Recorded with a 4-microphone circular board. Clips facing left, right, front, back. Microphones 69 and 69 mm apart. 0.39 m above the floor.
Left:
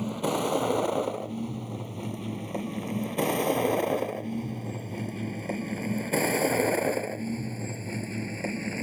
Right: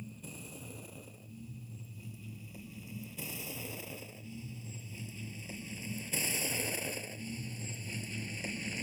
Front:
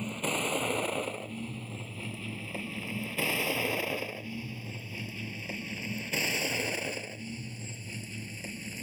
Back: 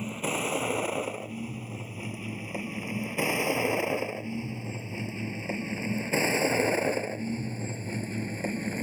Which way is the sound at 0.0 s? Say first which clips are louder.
Left 21 dB, back 2 dB; 95° left.